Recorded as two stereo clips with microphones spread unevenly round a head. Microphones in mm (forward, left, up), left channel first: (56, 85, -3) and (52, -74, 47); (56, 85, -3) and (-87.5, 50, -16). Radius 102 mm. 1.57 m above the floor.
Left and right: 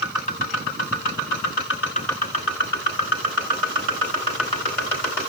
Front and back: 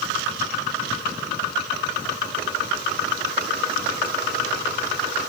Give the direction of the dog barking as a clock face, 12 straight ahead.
No dog barking in this recording.